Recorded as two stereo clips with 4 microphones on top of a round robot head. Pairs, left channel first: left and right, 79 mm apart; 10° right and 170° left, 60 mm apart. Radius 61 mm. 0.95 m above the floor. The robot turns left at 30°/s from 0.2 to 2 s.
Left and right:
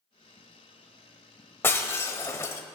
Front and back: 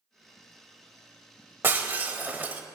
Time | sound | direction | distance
1.6 | breaking glass | 135° left | 0.8 m